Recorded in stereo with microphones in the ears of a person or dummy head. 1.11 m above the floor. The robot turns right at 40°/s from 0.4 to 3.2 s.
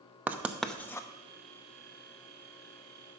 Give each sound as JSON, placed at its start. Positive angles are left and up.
{"t": 0.3, "sound": "writing", "side_deg": -10, "distance_m": 0.7}